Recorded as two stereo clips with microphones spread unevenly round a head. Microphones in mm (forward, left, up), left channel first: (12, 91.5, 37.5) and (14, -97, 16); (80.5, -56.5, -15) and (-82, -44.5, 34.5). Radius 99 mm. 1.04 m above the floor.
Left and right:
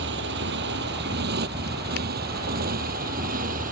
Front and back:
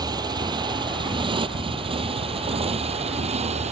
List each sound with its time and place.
0.0 s a motorcycle: 120° right; by 3.7 s 140° right